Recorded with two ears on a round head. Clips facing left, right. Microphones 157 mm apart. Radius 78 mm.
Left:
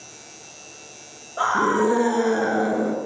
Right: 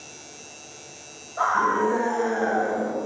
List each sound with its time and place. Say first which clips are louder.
1.4 s a scream: left 3 dB; 40° left (ahead or behind), 6 m; by 3.0 s 50° left (ahead or behind), 6.5 m